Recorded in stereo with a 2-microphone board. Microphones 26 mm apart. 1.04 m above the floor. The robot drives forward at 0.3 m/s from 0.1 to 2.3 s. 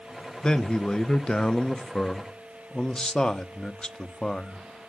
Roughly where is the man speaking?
Left.